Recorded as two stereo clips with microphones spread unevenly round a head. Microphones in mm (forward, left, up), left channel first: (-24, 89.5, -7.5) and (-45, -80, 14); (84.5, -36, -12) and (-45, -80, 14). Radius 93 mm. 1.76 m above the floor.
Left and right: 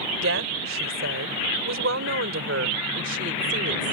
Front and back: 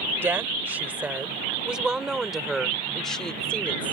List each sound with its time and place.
0.2 s a woman speaking: 90° right; by 3.9 s 65° right